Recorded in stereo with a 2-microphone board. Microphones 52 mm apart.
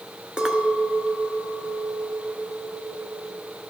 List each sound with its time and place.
0.4 s a clink: 20° right (ahead or behind), 0.6 m